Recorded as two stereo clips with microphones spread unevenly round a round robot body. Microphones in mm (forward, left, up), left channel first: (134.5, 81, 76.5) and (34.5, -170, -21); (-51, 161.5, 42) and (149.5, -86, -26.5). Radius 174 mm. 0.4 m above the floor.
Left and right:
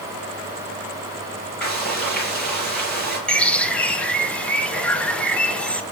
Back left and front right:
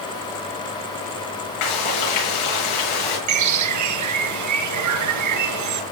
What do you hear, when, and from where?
1.6 s frying: 155° left, 5.5 m
3.3 s a bird: 20° right, 1.6 m